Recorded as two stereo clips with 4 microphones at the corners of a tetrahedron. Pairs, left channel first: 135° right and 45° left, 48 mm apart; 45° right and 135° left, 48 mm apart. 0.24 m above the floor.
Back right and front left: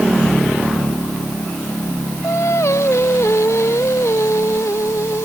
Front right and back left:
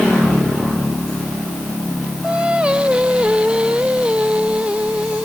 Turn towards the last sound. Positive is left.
turn(degrees=-155)